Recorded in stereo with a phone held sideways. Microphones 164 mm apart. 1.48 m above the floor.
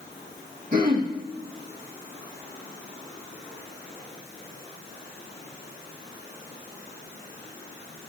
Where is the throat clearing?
55° right (ahead or behind), 1.7 m.